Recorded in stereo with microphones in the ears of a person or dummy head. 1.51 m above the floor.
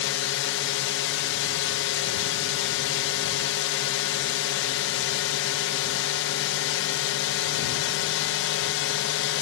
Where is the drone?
65° left (ahead or behind).